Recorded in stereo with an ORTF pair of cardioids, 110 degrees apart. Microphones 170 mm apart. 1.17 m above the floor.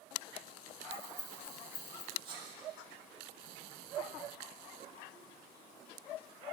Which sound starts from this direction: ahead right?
A sneeze, at 2.2 s.